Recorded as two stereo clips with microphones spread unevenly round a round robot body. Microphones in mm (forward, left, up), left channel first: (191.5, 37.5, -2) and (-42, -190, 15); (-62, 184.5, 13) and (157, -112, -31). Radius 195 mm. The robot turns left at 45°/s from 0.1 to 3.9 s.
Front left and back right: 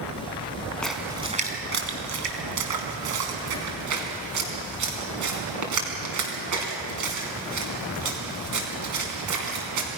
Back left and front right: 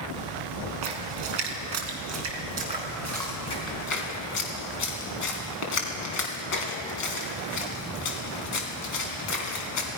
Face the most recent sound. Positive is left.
turn(degrees=180)